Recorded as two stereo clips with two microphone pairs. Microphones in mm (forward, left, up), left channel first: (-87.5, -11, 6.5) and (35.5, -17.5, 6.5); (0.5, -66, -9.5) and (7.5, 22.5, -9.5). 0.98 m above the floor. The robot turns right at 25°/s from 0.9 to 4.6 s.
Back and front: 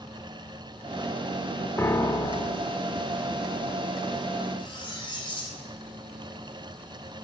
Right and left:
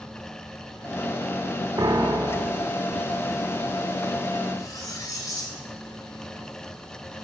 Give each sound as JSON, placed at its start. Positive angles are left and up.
{"t": 1.8, "sound": "a piano", "azimuth_deg": 115, "distance_m": 0.7}
{"t": 4.6, "sound": "cutlery clinking", "azimuth_deg": -140, "distance_m": 2.0}